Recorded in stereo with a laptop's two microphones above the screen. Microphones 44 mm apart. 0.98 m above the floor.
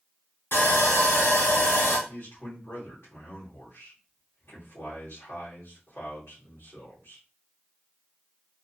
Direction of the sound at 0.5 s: 65° left (ahead or behind).